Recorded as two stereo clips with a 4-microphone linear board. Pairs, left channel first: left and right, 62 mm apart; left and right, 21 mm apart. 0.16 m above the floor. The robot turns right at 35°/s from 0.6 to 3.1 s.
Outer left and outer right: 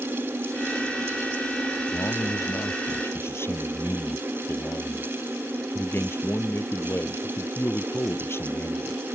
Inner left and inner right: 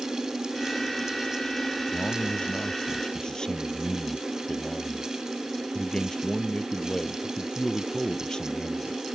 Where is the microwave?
No microwave in this recording.